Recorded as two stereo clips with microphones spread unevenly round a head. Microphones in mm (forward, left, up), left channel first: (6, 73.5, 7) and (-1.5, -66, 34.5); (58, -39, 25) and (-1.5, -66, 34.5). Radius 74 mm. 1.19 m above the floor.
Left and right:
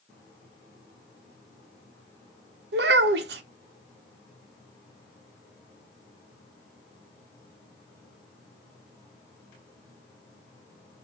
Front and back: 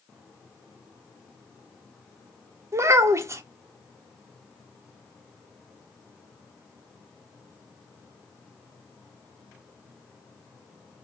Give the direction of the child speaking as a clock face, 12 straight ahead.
4 o'clock.